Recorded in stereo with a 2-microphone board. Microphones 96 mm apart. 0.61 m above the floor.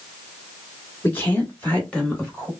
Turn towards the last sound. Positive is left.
turn(degrees=10)  # may be behind; listen again after turning